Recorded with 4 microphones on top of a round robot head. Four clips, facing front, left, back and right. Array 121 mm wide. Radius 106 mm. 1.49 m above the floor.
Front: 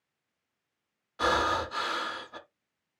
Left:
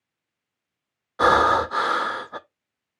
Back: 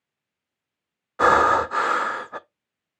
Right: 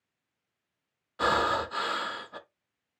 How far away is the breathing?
About 0.5 m.